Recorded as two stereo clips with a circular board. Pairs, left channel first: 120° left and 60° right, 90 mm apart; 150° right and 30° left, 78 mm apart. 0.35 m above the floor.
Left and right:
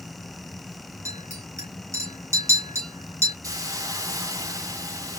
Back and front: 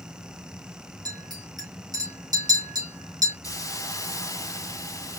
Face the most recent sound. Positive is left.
turn(degrees=-110)